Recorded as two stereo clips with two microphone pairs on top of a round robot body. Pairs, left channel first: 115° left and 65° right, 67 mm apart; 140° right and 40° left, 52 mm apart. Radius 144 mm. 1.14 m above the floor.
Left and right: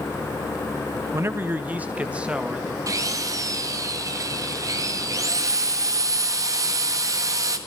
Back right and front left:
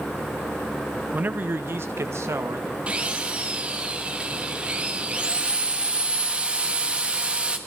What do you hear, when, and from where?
1.1 s a man speaking: 20° right, 0.6 m; by 2.8 s 10° left, 1.9 m
2.9 s a drill: 30° right, 1.3 m